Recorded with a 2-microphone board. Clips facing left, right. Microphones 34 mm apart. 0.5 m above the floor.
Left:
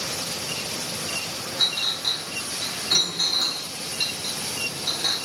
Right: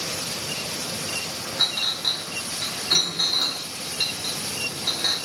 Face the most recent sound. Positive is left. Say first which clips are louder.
# even
turn(degrees=-15)  # may be behind; listen again after turning